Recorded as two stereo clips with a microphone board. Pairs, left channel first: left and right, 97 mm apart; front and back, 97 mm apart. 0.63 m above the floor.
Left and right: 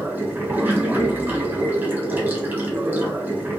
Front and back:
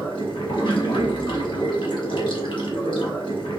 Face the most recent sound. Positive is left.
turn(degrees=-25)